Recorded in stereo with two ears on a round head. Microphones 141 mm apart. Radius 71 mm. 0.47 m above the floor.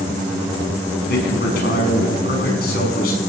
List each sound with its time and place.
1.1 s a man speaking: 65° left (ahead or behind), 5 m